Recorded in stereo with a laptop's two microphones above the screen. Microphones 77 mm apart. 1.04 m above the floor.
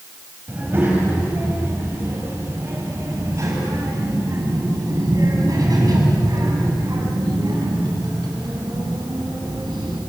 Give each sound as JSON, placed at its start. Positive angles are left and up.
{"t": 0.5, "sound": "a child speaking", "side_deg": -25, "distance_m": 4.0}